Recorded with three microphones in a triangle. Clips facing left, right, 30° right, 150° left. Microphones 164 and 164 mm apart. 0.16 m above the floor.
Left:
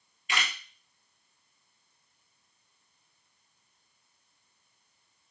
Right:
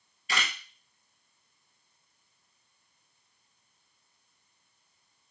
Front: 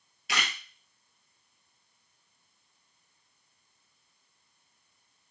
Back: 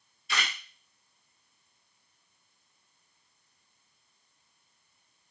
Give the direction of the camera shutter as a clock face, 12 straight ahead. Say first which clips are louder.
Even, even; 1 o'clock.